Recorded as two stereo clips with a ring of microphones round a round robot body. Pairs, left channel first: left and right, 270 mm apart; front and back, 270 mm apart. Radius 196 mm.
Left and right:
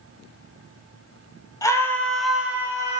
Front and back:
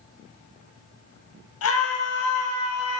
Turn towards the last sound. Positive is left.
turn(degrees=-20)